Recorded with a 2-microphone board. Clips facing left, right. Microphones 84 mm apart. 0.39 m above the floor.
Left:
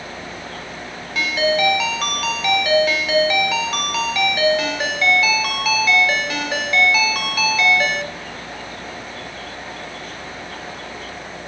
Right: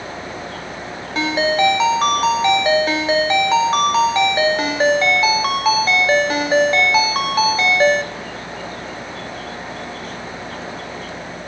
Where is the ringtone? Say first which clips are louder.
Right 2 dB; 35° right (ahead or behind), 1.0 m.